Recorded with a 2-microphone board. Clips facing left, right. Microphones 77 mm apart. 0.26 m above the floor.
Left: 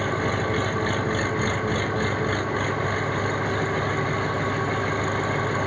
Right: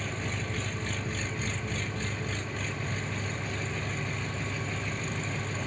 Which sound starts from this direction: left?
An engine running, at 0.0 s.